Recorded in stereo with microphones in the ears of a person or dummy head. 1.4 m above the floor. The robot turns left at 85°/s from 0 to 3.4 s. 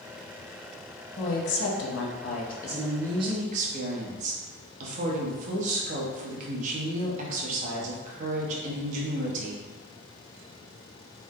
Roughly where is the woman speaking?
Behind left.